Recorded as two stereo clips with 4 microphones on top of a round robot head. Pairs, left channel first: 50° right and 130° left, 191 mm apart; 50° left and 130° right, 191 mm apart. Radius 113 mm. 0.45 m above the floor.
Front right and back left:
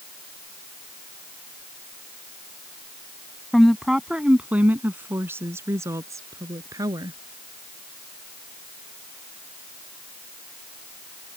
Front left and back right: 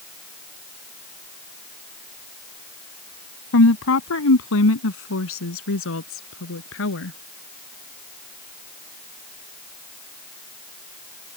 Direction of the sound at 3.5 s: 40° left.